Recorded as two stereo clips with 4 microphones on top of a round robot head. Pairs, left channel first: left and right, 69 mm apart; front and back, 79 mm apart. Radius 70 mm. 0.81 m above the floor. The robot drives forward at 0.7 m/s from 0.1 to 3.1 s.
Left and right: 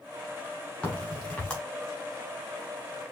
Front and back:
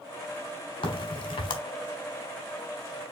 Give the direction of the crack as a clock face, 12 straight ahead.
12 o'clock.